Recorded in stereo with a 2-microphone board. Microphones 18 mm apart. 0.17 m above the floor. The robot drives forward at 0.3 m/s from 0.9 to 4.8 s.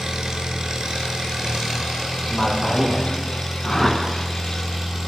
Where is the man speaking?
20° left (ahead or behind), 1.7 m.